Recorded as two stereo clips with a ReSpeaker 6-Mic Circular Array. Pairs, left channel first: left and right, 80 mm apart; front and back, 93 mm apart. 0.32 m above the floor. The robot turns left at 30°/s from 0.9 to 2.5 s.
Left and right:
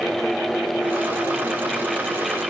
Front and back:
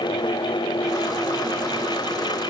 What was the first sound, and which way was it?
Only background noise.